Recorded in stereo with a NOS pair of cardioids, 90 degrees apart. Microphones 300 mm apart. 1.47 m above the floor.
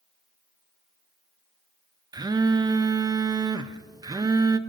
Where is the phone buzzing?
15° right, 0.5 m.